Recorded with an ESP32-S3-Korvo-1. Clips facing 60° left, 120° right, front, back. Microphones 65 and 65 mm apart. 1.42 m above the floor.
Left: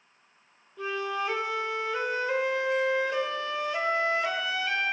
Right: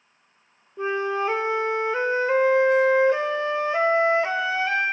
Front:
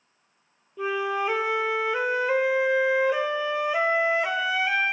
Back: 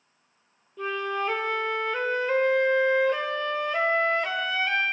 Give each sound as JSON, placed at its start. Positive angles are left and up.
{"t": 0.8, "sound": "a flute", "azimuth_deg": -75, "distance_m": 0.5}